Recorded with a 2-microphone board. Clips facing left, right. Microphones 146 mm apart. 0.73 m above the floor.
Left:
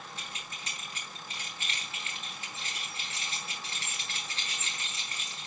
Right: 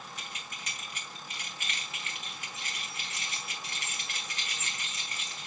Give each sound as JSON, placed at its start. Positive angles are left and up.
{"t": 0.2, "sound": "keys jangling", "side_deg": 30, "distance_m": 4.0}